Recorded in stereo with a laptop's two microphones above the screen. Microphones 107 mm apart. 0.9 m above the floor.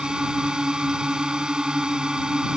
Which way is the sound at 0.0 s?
5° right (ahead or behind).